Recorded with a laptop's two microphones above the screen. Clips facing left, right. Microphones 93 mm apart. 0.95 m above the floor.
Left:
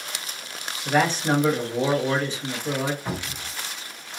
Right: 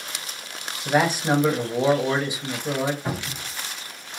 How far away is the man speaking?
About 0.8 m.